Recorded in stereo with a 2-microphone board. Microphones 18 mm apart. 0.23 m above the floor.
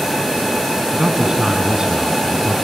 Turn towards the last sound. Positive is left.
turn(degrees=-50)  # may be behind; listen again after turning